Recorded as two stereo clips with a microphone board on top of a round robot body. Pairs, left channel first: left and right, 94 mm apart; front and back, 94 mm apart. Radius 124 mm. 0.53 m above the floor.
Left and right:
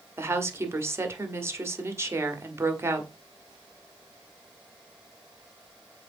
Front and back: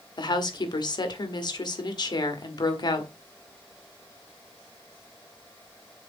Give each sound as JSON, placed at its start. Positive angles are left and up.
{"t": 0.2, "sound": "a woman speaking", "azimuth_deg": -30, "distance_m": 1.6}